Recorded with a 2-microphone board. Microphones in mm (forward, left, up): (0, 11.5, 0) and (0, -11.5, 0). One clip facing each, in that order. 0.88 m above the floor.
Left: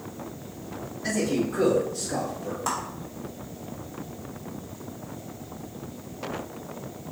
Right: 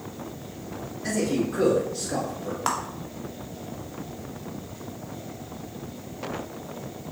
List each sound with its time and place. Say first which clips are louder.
1.0 s a man speaking: even; 10° left (ahead or behind), 2.0 m; by 2.6 s 50° right (ahead or behind), 1.5 m
2.7 s a clap: right 3 dB; 55° right (ahead or behind), 0.9 m